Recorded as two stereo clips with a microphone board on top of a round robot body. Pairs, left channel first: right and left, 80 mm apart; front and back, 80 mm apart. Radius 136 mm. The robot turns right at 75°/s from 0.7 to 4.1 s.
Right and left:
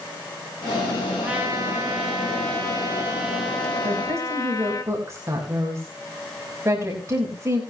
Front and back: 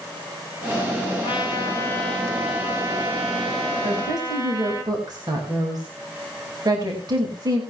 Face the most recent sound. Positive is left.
turn(degrees=145)